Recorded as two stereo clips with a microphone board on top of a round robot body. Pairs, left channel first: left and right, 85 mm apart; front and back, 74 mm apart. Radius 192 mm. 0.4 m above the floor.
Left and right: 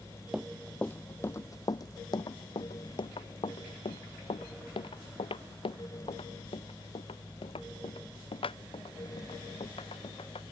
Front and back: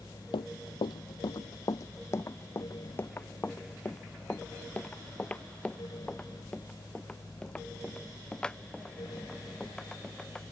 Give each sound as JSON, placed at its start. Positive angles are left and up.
{"t": 0.3, "sound": "running footsteps", "azimuth_deg": -5}